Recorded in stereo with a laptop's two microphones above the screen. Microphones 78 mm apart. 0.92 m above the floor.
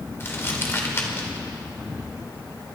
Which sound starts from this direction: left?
Crumpling, at 0.2 s.